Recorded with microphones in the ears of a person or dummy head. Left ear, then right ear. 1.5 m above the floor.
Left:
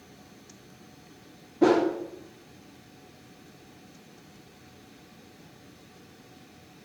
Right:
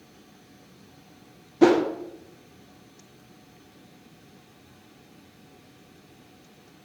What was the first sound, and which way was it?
A whoosh, 65° right (ahead or behind).